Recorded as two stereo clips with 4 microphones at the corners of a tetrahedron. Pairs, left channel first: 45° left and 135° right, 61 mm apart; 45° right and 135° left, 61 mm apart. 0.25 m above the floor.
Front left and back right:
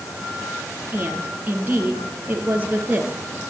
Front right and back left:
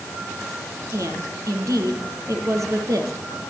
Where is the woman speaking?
165° left, 5.5 m.